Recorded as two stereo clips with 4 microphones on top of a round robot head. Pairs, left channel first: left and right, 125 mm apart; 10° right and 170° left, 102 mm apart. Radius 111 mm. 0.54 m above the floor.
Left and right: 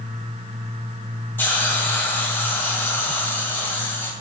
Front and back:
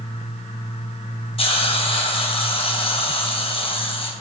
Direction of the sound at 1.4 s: 15° left.